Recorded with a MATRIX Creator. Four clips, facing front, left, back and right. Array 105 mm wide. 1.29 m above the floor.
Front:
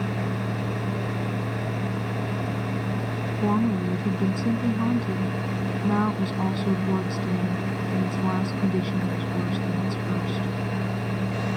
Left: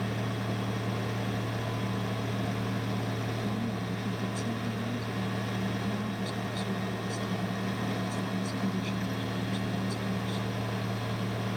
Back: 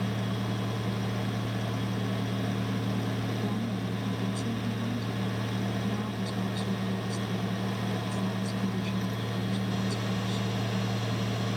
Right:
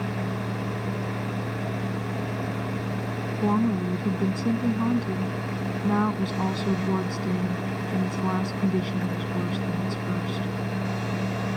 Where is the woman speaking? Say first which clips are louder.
Right 10 dB, front 9 dB; 45° right.